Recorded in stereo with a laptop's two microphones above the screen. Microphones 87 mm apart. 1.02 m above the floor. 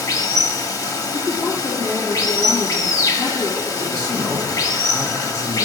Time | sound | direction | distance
0.0 | running water | 50° left (ahead or behind) | 1.2 m
1.1 | a woman speaking | 25° left (ahead or behind) | 1.4 m
3.8 | a man speaking | 45° left (ahead or behind) | 1.6 m